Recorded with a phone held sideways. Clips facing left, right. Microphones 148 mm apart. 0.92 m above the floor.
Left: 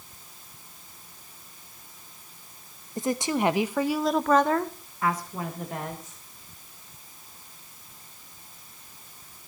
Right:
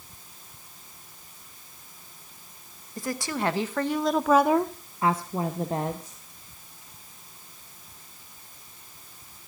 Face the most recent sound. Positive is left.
turn(degrees=-35)  # may be behind; listen again after turning